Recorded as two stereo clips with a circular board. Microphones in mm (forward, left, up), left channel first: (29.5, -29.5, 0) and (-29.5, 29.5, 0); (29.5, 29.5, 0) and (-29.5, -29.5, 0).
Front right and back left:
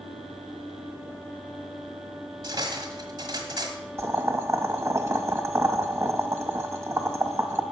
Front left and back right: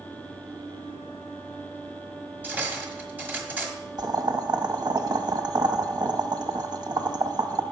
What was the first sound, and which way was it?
Cutlery clinking, 160° left.